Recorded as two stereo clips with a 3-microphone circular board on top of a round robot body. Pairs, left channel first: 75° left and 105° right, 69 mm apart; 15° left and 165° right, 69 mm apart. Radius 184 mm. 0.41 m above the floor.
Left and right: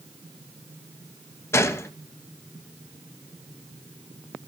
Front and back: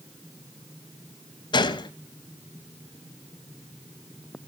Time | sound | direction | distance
1.5 | a gunshot | 20° left | 0.7 m